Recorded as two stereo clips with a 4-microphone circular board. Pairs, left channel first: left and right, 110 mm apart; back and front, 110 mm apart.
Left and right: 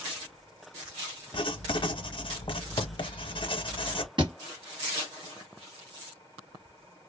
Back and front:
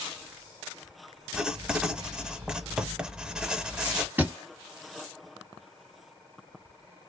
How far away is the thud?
About 0.9 m.